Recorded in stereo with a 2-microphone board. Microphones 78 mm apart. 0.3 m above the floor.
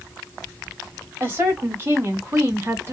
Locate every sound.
1.2 s a woman speaking: 30° right (ahead or behind), 1.5 m